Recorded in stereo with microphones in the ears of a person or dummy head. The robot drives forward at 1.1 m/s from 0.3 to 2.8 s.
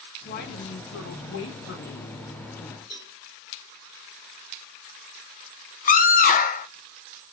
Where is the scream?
40° left (ahead or behind), 0.9 m.